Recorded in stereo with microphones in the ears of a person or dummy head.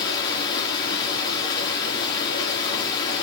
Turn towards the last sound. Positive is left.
turn(degrees=25)  # may be behind; listen again after turning